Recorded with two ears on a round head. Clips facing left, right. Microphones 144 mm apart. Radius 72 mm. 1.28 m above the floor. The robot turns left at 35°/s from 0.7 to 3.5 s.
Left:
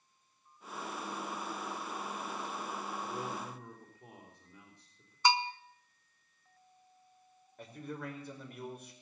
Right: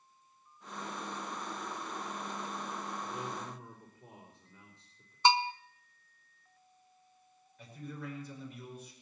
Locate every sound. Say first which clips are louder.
3.0 s a man speaking: left 1 dB; 30° left (ahead or behind), 3 m; by 5.2 s 15° left (ahead or behind), 3 m
5.2 s a bell: right 3 dB; 25° right (ahead or behind), 0.7 m
7.6 s a man speaking: left 2 dB; 45° left (ahead or behind), 5 m